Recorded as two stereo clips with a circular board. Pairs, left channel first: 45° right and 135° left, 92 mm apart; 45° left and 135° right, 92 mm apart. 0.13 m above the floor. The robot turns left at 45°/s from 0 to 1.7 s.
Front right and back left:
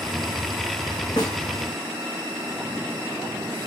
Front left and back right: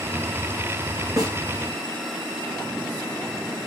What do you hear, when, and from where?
1.2 s a snare drum: 85° right, 5.5 m; by 1.4 s 95° right, 5.5 m